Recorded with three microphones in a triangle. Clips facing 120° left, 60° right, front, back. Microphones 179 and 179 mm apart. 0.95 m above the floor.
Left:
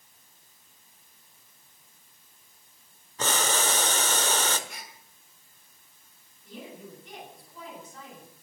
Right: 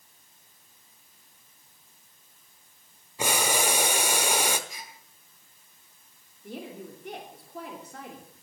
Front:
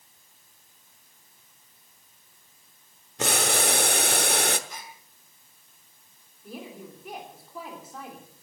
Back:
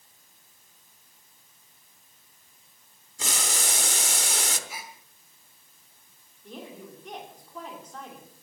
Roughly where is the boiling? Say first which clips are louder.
Right 1 dB, front 9 dB; ahead.